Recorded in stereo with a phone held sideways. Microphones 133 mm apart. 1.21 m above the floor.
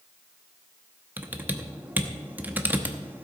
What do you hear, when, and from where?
1.2 s typing on a keyboard: 15° right (ahead or behind), 0.9 m